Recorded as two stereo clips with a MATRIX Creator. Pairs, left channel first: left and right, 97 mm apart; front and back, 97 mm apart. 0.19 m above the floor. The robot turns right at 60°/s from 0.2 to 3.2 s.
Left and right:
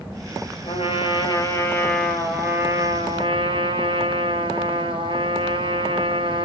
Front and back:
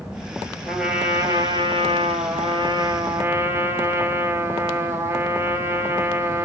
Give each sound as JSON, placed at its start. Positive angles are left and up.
{"t": 0.7, "sound": "a trumpet", "azimuth_deg": 90, "distance_m": 4.5}